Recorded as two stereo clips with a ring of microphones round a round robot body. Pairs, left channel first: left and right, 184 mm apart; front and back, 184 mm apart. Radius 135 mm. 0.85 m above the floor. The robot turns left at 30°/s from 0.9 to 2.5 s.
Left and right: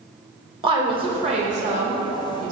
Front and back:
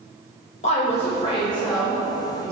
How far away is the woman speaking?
About 1.0 m.